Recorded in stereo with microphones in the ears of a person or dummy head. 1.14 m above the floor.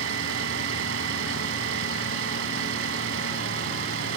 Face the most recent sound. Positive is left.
turn(degrees=-85)